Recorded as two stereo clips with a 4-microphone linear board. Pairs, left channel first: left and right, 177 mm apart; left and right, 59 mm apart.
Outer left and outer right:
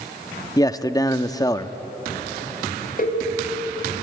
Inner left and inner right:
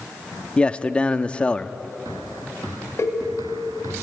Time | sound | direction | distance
0.6 | a man speaking | 20° left (ahead or behind) | 0.7 m
3.0 | a cowbell | 55° left (ahead or behind) | 3 m